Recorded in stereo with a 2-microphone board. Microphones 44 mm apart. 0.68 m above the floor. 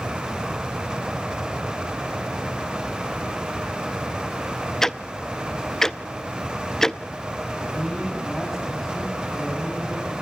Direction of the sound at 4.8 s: 10° left (ahead or behind).